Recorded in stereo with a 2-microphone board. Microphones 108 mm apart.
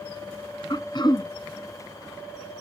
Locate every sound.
0.7 s throat clearing: 45° left (ahead or behind), 1.1 m